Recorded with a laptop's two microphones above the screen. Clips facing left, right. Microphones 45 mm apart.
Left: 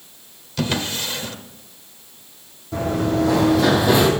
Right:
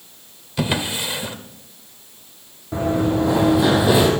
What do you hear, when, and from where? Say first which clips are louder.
0.6 s a drawer: right 1 dB; 20° right (ahead or behind), 0.9 m
2.7 s running footsteps: right 1 dB; 25° right (ahead or behind), 3 m; by 4.1 s 5° right (ahead or behind), 2 m